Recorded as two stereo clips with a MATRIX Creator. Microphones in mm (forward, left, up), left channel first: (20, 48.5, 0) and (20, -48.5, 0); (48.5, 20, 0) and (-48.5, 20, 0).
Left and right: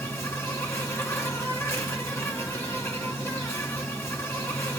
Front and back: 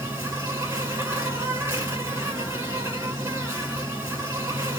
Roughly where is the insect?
Behind left.